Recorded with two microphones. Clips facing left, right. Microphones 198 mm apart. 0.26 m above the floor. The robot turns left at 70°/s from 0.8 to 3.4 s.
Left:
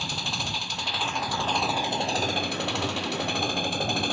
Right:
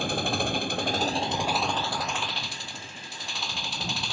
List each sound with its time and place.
0.0 s an engine running: 120° right; by 4.1 s 55° left